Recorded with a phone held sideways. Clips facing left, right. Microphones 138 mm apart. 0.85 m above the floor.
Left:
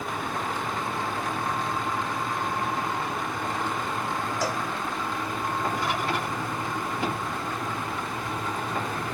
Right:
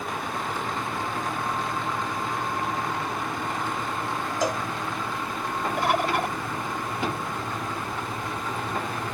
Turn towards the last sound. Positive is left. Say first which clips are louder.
# right 4 dB
turn(degrees=-60)  # may be behind; listen again after turning